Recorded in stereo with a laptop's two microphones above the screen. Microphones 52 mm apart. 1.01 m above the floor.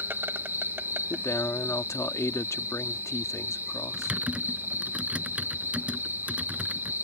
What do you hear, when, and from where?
0.0 s an insect: 45° right (ahead or behind)
1.1 s a man speaking: 75° left (ahead or behind)
3.9 s typing on a keyboard: 25° right (ahead or behind)